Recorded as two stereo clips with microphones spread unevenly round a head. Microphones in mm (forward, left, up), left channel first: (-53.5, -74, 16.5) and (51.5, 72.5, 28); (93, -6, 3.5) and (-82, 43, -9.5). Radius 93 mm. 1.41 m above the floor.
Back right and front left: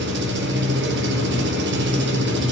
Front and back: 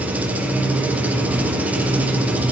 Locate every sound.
0.0 s an engine running: 80° left, 1.4 m